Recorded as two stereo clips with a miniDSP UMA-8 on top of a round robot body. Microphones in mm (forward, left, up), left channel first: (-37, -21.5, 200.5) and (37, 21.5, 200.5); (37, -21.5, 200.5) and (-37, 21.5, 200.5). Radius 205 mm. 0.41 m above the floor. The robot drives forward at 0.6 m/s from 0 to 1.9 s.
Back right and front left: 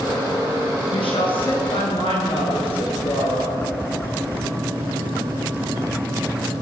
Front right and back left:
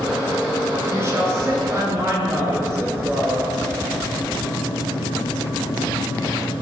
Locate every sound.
0.9 s a woman speaking: 150° right, 9 m